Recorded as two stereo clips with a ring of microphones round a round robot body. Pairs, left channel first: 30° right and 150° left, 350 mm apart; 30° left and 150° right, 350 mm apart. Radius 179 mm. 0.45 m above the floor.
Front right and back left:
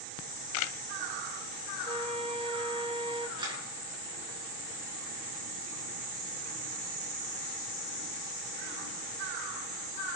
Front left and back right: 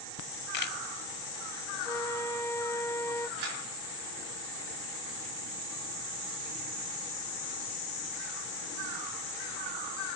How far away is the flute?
About 1.1 m.